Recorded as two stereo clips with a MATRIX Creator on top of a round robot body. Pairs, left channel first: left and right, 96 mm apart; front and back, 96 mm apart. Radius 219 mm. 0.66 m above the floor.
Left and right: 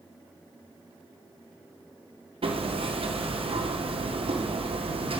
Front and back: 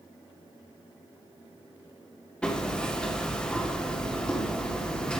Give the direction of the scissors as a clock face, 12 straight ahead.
I don't hear scissors.